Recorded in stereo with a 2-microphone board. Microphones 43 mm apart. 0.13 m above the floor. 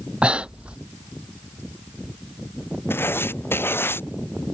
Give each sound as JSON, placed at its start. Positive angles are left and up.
{"t": 0.2, "sound": "breathing", "side_deg": -25}
{"t": 2.9, "sound": "writing", "side_deg": 60}